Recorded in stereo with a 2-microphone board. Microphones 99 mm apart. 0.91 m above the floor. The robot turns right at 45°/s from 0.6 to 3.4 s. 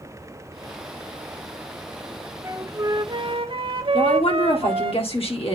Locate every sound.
2.4 s a flute: 155° right, 0.6 m; by 4.9 s 110° right, 0.6 m
3.9 s a woman speaking: 70° left (ahead or behind), 1.8 m